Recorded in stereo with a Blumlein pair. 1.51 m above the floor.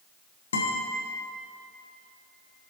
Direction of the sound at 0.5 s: 65° left.